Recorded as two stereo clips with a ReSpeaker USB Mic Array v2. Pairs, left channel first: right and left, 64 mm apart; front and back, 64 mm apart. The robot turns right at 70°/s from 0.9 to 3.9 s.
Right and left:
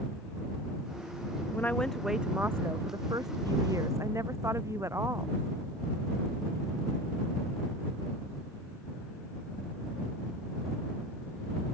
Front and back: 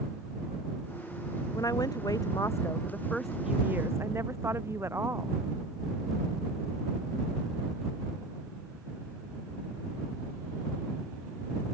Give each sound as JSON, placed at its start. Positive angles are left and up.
{"t": 1.5, "sound": "a woman speaking", "azimuth_deg": -35}